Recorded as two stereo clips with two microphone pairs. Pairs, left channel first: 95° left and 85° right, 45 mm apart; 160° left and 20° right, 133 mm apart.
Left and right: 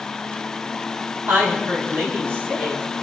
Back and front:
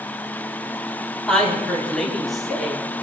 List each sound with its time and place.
1.3 s a woman speaking: 115° right, 3.5 m; by 2.8 s 110° right, 4.5 m